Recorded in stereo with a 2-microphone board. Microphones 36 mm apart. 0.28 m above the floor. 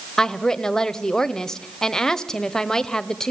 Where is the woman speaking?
15° left (ahead or behind), 0.9 m.